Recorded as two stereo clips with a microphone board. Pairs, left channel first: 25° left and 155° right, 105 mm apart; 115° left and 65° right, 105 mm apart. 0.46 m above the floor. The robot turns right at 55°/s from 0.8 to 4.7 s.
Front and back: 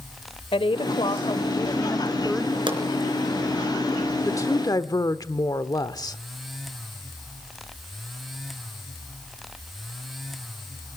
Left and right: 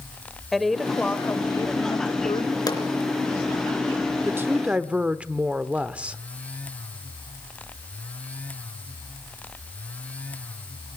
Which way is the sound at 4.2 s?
20° right.